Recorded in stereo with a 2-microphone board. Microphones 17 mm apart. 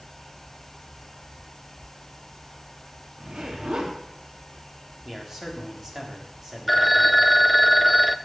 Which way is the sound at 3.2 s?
70° right (ahead or behind).